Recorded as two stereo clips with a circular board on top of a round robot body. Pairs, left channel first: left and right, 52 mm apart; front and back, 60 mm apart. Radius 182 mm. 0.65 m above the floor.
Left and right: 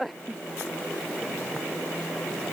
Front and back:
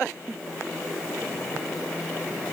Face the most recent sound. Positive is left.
No sound to turn to.